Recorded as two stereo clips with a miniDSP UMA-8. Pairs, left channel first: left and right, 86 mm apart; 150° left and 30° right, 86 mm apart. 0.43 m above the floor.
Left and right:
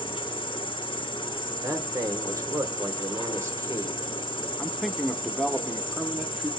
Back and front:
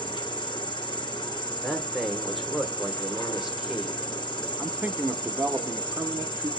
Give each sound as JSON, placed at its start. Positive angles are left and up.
{"t": 0.0, "sound": "an insect", "azimuth_deg": 115, "distance_m": 1.5}
{"t": 1.6, "sound": "a man speaking", "azimuth_deg": -115, "distance_m": 1.1}
{"t": 4.6, "sound": "a man speaking", "azimuth_deg": -10, "distance_m": 0.7}